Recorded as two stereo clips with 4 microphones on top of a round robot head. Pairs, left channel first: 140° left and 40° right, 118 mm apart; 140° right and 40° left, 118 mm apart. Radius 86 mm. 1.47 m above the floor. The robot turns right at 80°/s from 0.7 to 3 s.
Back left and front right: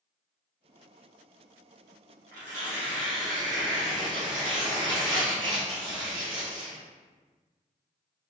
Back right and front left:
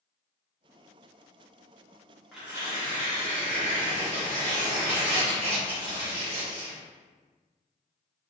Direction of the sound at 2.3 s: 50° right.